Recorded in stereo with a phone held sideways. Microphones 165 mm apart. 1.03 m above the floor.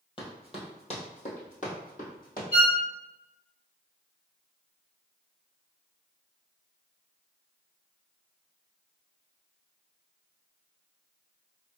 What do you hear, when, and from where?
0.2 s running footsteps: 30° left (ahead or behind), 1.8 m; by 2.4 s 60° left (ahead or behind), 2.5 m
2.5 s a violin: 55° left (ahead or behind), 1.8 m